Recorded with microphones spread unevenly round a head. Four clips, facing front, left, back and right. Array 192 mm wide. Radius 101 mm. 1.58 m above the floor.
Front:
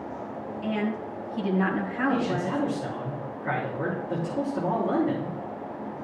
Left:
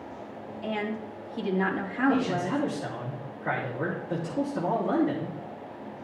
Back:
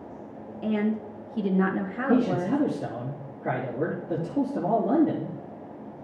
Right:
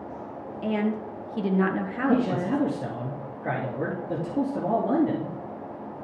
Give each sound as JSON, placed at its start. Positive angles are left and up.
{"t": 0.6, "sound": "a woman speaking", "azimuth_deg": -110, "distance_m": 1.5}
{"t": 2.1, "sound": "a man speaking", "azimuth_deg": -135, "distance_m": 3.0}